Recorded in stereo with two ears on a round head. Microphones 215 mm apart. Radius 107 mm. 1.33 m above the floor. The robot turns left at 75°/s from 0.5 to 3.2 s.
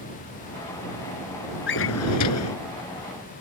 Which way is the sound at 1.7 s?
130° left.